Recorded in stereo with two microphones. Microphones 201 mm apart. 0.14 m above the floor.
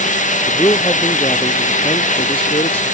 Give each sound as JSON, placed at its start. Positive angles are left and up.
{"t": 0.5, "sound": "a man speaking", "side_deg": 20}